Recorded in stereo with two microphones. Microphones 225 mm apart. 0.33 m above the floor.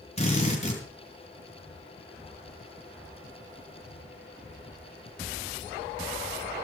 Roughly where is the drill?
Left.